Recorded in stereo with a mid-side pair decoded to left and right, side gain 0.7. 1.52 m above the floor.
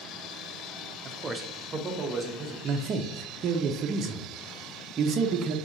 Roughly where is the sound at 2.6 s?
Ahead right.